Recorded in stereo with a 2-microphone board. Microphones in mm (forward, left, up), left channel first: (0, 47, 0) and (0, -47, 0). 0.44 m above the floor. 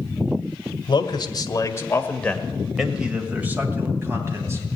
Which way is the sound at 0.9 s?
55° left (ahead or behind).